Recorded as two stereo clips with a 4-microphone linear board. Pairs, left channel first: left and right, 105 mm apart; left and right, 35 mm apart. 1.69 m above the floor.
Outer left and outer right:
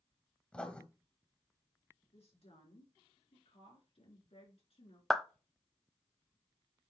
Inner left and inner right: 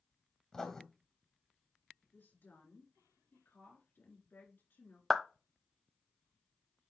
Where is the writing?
10° left (ahead or behind), 1.7 m.